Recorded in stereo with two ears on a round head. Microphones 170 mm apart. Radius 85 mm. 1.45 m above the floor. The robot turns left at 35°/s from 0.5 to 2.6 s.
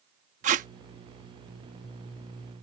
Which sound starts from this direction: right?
Tape being pulled, at 0.4 s.